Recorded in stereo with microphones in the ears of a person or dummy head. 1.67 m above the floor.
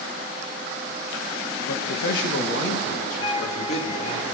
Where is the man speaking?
85° left, 2 m; by 4.2 s 40° left (ahead or behind), 5 m.